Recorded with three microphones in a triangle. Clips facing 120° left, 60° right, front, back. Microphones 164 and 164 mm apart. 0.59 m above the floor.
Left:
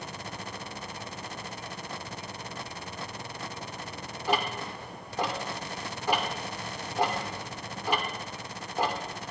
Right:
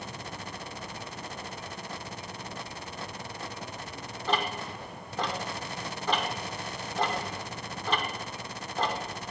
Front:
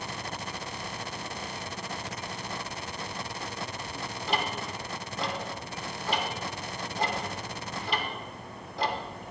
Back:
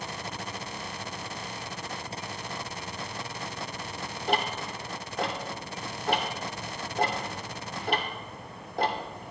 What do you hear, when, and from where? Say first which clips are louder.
4.3 s ticking: left 1 dB, back 3 dB; 165° right, 1.0 m